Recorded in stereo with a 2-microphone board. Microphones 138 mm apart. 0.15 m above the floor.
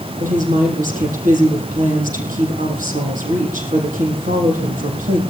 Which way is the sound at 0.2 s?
75° right (ahead or behind).